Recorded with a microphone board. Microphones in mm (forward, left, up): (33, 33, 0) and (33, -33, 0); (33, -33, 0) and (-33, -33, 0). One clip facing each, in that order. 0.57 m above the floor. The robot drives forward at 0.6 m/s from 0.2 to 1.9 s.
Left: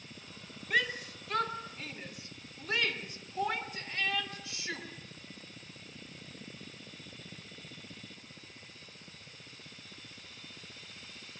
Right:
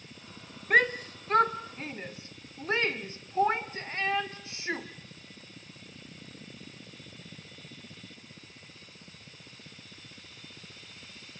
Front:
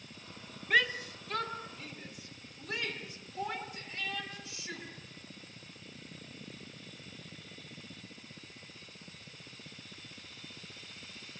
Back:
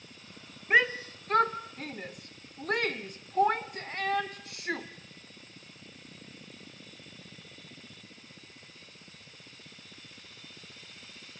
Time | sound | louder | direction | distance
0.7 | a shout | right 8 dB, back 4 dB | 115° right | 1.2 m